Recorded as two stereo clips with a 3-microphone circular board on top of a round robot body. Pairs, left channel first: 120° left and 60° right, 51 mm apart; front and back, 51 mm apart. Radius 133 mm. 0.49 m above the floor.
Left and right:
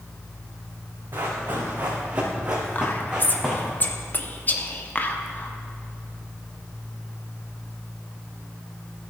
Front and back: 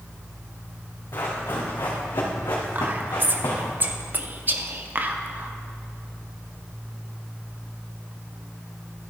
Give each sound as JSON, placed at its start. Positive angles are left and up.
{"t": 1.1, "sound": "running footsteps", "azimuth_deg": -25, "distance_m": 3.5}
{"t": 2.8, "sound": "whispering", "azimuth_deg": 155, "distance_m": 1.3}